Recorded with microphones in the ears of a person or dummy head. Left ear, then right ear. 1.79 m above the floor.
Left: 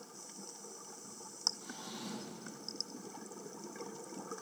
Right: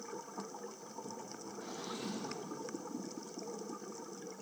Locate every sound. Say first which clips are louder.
1.6 s a drawer: right 3 dB; 5° right (ahead or behind), 2 m